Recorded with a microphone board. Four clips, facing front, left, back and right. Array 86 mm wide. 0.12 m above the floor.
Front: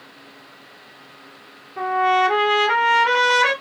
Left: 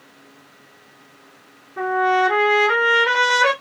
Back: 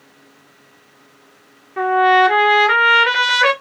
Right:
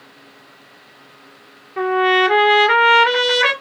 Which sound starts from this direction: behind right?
A trumpet, at 1.8 s.